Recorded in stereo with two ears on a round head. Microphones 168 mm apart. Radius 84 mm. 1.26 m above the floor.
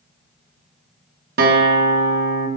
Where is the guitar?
55° right (ahead or behind), 1.1 m.